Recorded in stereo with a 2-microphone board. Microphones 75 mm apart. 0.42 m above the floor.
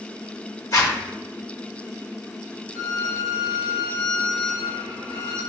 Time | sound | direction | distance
0.7 | a zipper | 50° left (ahead or behind) | 1.0 m
2.8 | a violin | 30° left (ahead or behind) | 1.6 m